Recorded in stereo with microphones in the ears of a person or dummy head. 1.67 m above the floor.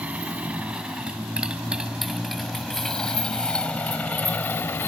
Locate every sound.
0.0 s a motorcycle: 10° right (ahead or behind); by 4.9 s 15° left (ahead or behind)